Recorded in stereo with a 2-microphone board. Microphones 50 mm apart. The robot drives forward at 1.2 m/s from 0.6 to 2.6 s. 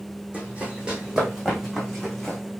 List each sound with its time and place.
0.3 s running footsteps: 25° right (ahead or behind), 3.5 m; by 2.4 s 5° left (ahead or behind), 4.5 m